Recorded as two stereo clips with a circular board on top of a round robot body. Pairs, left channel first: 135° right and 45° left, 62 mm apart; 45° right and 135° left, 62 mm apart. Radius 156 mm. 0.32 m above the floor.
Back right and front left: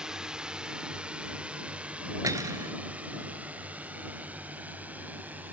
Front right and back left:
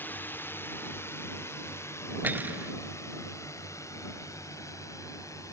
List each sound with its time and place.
0.0 s a drone: 25° right; by 5.5 s 15° right
2.2 s cutlery clinking: 75° left